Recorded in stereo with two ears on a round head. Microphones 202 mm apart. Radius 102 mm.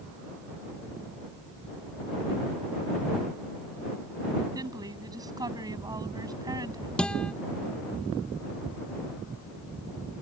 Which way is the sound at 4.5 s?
15° right (ahead or behind).